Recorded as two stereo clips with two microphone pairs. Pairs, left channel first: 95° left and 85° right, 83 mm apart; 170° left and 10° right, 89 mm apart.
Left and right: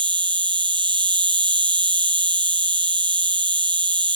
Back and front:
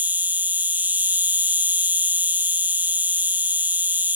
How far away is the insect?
About 1.0 m.